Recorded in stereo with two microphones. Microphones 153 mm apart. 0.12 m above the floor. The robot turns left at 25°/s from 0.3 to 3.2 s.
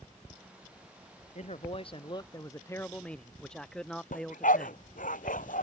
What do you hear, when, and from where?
1.4 s a man speaking: 50° left; by 4.8 s 5° left
4.1 s a dog barking: 70° left (ahead or behind)